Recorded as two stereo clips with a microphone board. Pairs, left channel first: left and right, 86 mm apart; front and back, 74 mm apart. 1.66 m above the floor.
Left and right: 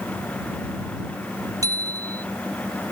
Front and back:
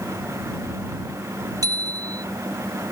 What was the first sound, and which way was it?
A bicycle bell, 140° right.